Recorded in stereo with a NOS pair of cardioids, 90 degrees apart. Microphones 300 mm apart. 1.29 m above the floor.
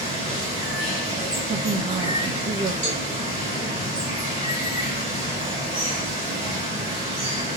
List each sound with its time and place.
0.0 s running water: 20° right, 2.0 m
1.5 s a woman speaking: 35° right, 0.8 m
2.8 s a cowbell: 25° right, 2 m